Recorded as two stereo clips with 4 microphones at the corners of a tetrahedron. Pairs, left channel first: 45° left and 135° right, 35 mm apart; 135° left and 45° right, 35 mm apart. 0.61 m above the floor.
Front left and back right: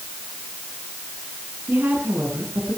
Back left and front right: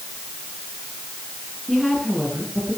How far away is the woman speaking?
About 7.5 m.